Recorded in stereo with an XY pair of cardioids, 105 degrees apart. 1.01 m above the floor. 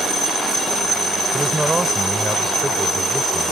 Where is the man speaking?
10° right.